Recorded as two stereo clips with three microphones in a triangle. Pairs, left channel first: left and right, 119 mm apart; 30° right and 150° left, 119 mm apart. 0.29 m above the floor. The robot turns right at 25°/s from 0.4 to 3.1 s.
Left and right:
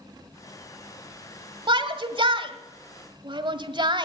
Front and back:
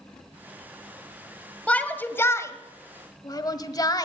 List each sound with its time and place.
1.7 s a shout: 105° right, 1.4 m; by 4.0 s 70° right, 1.4 m